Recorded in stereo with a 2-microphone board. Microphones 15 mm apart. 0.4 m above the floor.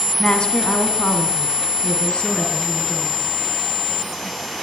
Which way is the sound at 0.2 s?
55° left (ahead or behind).